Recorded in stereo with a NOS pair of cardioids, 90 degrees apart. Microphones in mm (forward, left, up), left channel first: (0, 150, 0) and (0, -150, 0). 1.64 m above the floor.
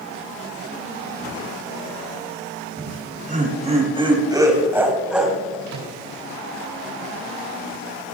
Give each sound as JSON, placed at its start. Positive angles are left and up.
{"t": 2.8, "sound": "laughter", "azimuth_deg": -35, "distance_m": 5.0}
{"t": 5.7, "sound": "a microwave", "azimuth_deg": -70, "distance_m": 4.5}